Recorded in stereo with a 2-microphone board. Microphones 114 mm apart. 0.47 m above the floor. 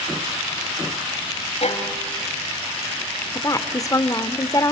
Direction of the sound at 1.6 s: 65° left (ahead or behind).